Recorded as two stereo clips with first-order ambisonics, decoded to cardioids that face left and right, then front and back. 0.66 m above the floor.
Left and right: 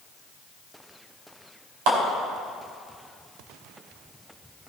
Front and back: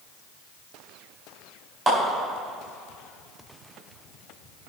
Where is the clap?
85° right, 4 m.